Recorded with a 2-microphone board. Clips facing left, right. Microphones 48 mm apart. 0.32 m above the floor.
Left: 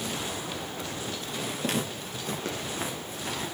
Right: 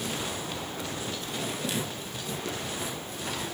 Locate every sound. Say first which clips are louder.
1.6 s footsteps: left 2 dB; 50° left (ahead or behind), 6 m; by 3.5 s 35° left (ahead or behind), 4.5 m